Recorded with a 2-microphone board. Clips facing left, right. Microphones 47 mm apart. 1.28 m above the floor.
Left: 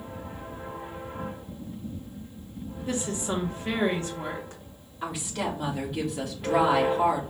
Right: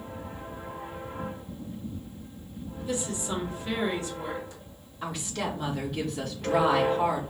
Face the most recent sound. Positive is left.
turn(degrees=10)  # may be behind; listen again after turning